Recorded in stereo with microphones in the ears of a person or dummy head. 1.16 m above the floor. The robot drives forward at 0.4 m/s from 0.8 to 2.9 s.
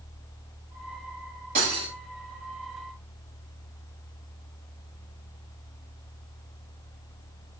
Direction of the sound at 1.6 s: 65° right (ahead or behind).